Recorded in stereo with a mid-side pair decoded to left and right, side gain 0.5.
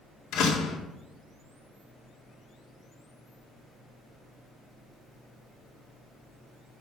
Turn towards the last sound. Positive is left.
turn(degrees=70)